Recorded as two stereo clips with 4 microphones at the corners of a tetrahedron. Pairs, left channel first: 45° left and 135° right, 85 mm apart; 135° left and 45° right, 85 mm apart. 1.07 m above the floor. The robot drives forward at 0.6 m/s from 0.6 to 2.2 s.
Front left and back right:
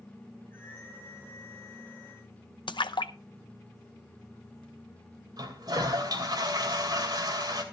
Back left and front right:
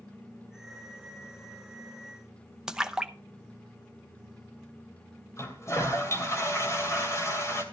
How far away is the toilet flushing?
About 2.5 m.